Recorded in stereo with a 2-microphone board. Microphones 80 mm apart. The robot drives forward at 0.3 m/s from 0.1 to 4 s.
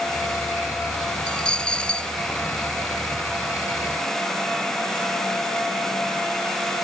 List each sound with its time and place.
1.3 s a dropped coin: 10° left (ahead or behind)